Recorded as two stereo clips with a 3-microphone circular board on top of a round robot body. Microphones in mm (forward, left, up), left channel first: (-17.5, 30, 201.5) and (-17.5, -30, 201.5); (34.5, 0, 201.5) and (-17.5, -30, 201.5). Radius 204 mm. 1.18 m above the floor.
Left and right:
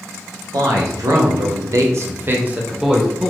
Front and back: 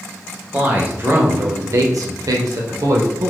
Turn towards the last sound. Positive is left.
turn(degrees=175)